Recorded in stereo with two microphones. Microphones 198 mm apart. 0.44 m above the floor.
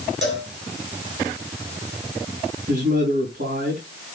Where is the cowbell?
75° right (ahead or behind), 5.5 m.